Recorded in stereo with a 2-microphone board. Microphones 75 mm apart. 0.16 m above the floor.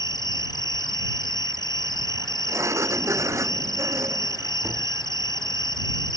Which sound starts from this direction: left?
An insect, at 0.0 s.